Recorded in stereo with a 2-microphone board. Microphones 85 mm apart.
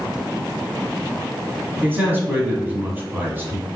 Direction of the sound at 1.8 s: 25° right (ahead or behind).